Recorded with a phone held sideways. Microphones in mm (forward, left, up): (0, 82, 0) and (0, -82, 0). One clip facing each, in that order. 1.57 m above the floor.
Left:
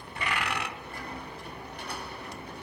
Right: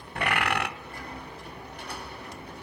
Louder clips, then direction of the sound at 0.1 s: Right 5 dB; 70° right (ahead or behind).